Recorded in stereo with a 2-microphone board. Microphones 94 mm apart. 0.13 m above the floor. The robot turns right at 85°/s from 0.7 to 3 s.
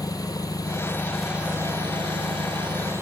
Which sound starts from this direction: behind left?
An engine running, at 0.0 s.